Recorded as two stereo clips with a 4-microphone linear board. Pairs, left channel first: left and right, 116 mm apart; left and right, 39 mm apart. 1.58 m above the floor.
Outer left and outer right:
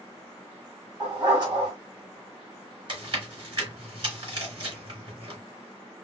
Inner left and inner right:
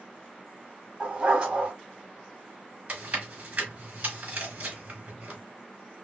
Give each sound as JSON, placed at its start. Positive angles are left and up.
{"t": 1.0, "sound": "a dog barking", "side_deg": -35, "distance_m": 2.0}
{"t": 2.9, "sound": "chewing", "side_deg": -45, "distance_m": 3.0}